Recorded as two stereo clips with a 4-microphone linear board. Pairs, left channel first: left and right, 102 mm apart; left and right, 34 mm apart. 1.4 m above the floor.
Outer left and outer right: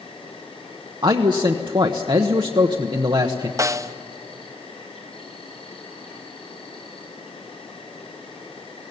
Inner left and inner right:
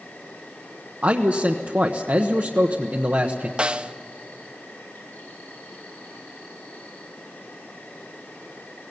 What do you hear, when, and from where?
0.0 s an insect: 75° left (ahead or behind), 6 m
1.0 s a man speaking: 50° right (ahead or behind), 1.0 m
3.6 s a snare drum: 30° right (ahead or behind), 0.6 m